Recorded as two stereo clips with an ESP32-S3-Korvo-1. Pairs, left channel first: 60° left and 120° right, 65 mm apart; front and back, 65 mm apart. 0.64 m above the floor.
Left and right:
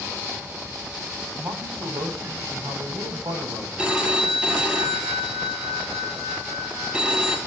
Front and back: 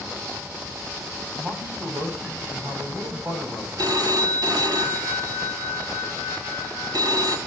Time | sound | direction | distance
1.4 | a man speaking | 120° right | 5 m
3.8 | a phone ringing | 165° left | 2.5 m